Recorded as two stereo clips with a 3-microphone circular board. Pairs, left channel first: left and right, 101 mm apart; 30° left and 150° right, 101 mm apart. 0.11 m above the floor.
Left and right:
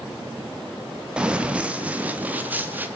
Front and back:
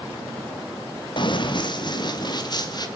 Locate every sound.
1.2 s running footsteps: 10° right, 2.5 m; by 2.9 s 20° right, 3 m